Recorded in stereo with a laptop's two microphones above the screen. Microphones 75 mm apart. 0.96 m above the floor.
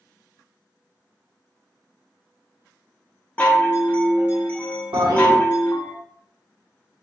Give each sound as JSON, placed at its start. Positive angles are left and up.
{"t": 3.4, "sound": "a chime", "side_deg": 25, "distance_m": 0.7}
{"t": 4.9, "sound": "a toilet flushing", "side_deg": -65, "distance_m": 1.0}